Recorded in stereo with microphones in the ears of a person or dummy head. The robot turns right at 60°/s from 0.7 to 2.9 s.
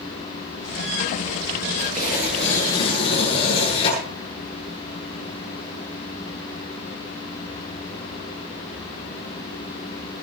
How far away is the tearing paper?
About 10 m.